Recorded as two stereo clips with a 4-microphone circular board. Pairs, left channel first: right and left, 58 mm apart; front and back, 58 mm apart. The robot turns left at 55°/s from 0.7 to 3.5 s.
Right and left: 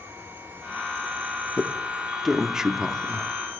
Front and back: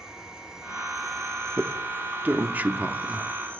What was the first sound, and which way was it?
An insect, 110° left.